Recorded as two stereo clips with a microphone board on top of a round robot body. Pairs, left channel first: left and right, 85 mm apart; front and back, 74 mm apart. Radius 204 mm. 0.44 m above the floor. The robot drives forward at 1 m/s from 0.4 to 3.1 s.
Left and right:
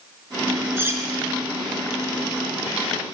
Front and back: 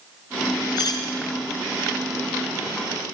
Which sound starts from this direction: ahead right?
Cutlery clinking, at 0.8 s.